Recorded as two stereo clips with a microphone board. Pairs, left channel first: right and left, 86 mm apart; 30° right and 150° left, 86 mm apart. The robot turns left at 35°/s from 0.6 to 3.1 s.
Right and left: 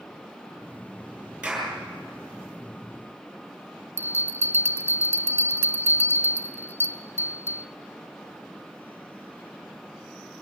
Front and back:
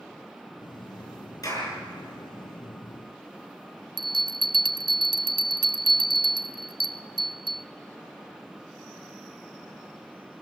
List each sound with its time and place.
1.4 s a clap: 15° left, 6.5 m; by 1.7 s 5° left, 6.5 m
4.0 s a bell: 150° left, 0.6 m